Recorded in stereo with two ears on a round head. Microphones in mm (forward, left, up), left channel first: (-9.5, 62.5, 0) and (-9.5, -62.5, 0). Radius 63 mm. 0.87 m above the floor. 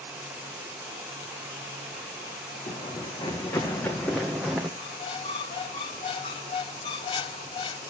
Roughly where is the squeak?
Left.